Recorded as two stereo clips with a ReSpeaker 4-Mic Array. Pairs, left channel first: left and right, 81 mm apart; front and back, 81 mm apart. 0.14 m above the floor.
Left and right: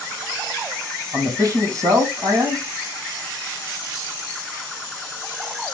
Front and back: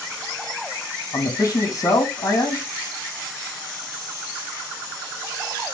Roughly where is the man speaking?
Ahead right.